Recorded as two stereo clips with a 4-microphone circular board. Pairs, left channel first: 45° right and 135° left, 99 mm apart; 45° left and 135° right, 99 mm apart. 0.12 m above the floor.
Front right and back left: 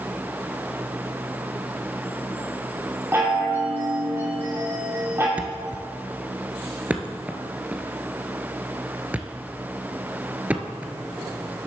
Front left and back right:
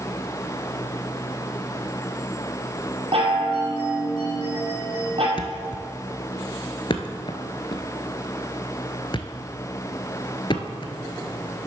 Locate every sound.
3.1 s a chime: 160° right, 2.5 m
5.4 s a thud: 65° left, 0.9 m